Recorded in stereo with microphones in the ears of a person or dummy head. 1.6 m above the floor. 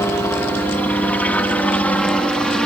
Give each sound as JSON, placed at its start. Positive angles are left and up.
{"t": 0.0, "sound": "a helicopter", "side_deg": 10}